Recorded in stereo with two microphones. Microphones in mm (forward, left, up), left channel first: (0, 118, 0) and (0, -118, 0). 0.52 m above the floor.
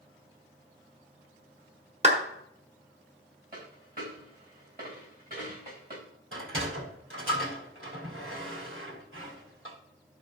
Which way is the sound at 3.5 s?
40° right (ahead or behind).